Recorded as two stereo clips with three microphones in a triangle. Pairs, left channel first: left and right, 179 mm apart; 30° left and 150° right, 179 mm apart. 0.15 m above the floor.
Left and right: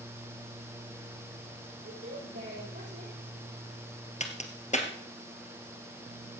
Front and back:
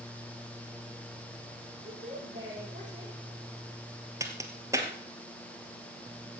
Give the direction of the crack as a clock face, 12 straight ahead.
7 o'clock.